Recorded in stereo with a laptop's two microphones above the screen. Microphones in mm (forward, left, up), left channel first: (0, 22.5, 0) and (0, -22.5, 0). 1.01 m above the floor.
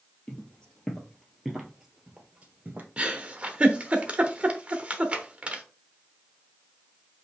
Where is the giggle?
25° right (ahead or behind), 0.8 m.